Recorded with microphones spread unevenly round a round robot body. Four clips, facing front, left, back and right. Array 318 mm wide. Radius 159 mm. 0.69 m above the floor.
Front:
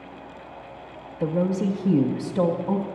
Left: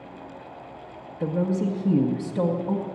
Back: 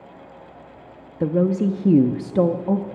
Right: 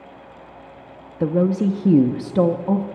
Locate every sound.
1.2 s a woman speaking: 125° right, 0.7 m